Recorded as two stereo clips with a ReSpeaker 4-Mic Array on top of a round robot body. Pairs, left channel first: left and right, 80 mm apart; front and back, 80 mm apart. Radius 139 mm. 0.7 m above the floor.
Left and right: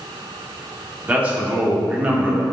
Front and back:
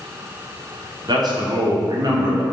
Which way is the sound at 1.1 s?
160° right.